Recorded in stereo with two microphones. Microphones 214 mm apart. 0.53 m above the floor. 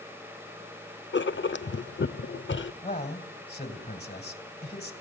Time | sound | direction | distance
1.1 | writing | 60° left (ahead or behind) | 0.6 m
2.8 | a man speaking | 50° left (ahead or behind) | 3 m